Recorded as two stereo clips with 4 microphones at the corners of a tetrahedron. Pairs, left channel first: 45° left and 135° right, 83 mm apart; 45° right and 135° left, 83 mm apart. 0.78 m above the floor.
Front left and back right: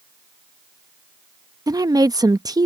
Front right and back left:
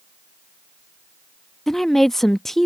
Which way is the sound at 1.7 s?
130° right.